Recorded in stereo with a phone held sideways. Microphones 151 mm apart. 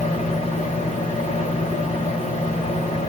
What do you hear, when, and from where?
0.0 s a fan: 40° left (ahead or behind), 1.1 m